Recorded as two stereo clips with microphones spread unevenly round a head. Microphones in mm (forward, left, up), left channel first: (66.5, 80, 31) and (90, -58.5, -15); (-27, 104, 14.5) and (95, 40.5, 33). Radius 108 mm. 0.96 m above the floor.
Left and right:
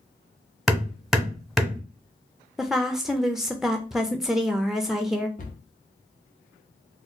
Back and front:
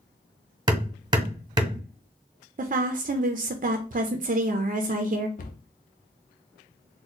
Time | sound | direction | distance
0.7 | hammering | 20° left | 1.0 m
2.6 | a woman speaking | 5° right | 0.5 m
5.4 | a cupboard door | 130° left | 0.7 m